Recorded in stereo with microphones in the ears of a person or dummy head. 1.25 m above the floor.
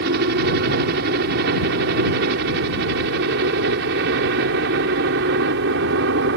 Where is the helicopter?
60° right (ahead or behind); by 6.4 s 65° right (ahead or behind).